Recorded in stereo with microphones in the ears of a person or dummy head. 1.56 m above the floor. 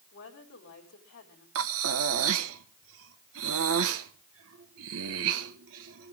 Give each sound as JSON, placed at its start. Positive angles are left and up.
{"t": 0.1, "sound": "a woman speaking", "side_deg": 55, "distance_m": 5.0}
{"t": 1.6, "sound": "breathing", "side_deg": -75, "distance_m": 1.3}